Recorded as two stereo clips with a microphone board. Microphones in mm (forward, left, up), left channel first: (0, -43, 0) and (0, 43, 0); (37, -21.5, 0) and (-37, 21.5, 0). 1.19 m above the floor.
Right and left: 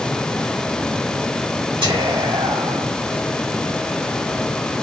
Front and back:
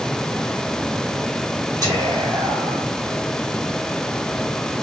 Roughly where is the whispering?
Left.